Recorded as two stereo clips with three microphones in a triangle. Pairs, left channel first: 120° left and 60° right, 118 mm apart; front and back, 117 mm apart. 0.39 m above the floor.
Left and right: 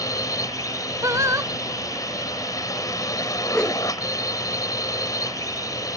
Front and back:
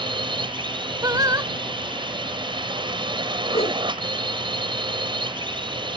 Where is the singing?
125° right.